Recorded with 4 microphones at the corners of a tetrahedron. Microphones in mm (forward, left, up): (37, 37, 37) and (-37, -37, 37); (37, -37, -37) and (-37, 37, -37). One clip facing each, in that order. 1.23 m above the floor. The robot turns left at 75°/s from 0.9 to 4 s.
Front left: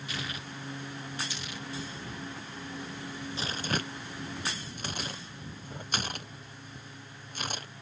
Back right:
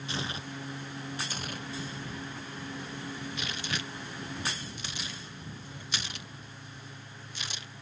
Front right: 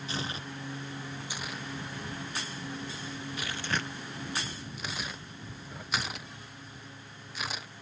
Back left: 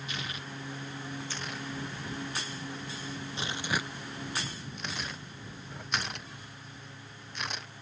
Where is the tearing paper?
85° right; by 7.7 s 40° left.